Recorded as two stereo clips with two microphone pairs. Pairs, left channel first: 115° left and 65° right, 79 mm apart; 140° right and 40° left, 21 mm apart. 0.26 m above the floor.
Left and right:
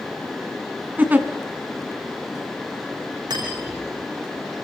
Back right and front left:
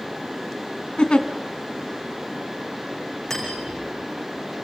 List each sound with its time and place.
1.0 s a giggle: 125° right, 2.5 m
3.3 s cutlery clinking: 75° right, 9 m